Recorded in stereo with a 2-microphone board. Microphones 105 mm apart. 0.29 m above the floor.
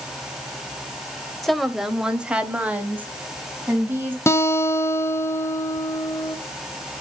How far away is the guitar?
About 0.6 m.